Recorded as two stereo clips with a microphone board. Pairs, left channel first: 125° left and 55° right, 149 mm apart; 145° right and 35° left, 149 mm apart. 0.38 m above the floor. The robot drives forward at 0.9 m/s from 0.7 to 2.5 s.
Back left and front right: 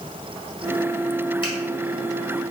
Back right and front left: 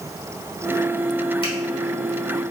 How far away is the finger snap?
About 1.9 m.